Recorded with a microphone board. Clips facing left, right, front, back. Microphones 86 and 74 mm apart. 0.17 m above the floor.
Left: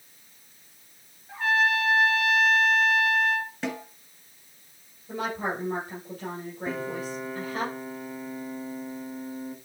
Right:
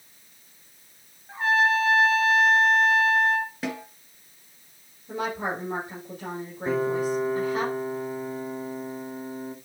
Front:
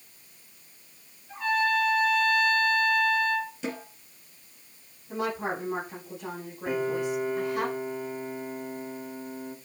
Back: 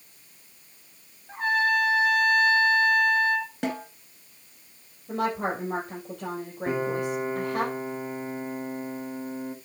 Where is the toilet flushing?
I don't hear a toilet flushing.